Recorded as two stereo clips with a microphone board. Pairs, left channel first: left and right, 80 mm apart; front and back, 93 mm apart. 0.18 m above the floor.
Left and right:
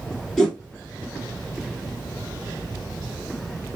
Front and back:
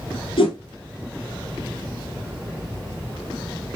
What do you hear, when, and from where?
0.4 s a whoosh: straight ahead, 1.4 m